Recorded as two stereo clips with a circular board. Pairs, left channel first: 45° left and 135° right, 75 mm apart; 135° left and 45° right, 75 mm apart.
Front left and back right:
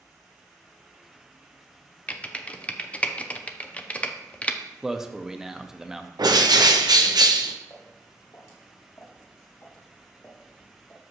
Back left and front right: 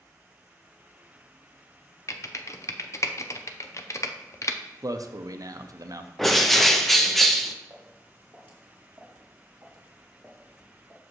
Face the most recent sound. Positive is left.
turn(degrees=85)